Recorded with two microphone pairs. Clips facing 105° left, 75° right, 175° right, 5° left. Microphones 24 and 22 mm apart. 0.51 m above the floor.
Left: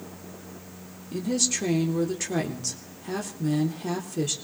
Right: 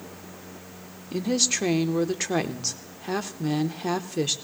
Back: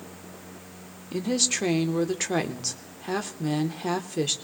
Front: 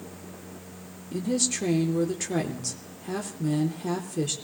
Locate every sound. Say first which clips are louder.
1.1 s a woman speaking: right 2 dB, back 2 dB; 125° right, 0.9 m